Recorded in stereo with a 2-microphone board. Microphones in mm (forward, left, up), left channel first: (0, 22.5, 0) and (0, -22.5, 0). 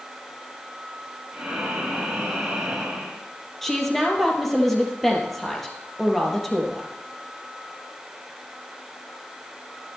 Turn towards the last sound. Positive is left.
turn(degrees=5)  # may be behind; listen again after turning